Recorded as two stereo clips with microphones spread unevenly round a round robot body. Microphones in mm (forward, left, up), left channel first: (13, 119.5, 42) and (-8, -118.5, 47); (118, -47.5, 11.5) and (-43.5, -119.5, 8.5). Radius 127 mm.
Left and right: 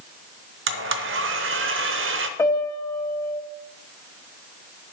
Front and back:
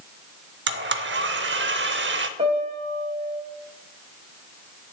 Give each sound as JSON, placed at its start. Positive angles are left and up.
{"t": 0.7, "sound": "a blender", "azimuth_deg": -140, "distance_m": 0.7}
{"t": 2.4, "sound": "a piano", "azimuth_deg": 155, "distance_m": 1.3}